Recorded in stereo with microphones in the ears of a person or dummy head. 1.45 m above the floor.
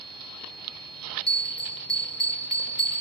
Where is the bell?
5° left (ahead or behind), 2 m.